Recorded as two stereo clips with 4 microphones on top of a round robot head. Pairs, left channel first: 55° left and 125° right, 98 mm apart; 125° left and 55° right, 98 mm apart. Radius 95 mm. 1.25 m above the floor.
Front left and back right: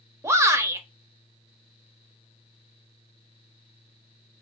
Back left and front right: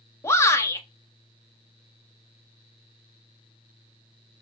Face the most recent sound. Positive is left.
turn(degrees=180)